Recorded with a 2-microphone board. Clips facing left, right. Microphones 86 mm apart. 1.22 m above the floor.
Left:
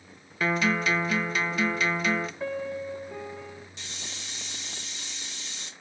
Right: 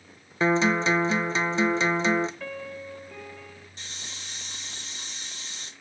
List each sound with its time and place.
0.4 s a guitar: 25° right (ahead or behind), 0.6 m
2.4 s a piano: 20° left (ahead or behind), 0.7 m
3.8 s a hiss: 40° right (ahead or behind), 1.2 m